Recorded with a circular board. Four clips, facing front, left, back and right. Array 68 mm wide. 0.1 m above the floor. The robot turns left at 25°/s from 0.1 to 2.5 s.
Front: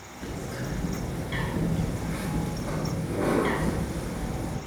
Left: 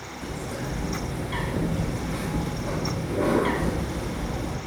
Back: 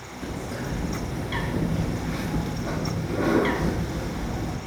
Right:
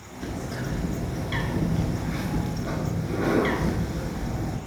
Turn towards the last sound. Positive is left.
turn(degrees=-150)